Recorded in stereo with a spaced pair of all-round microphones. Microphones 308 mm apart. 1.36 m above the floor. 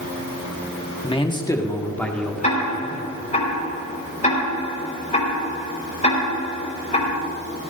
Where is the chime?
No chime in this recording.